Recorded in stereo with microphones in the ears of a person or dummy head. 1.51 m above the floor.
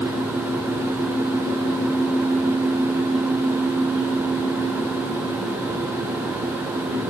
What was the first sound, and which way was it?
Only background noise.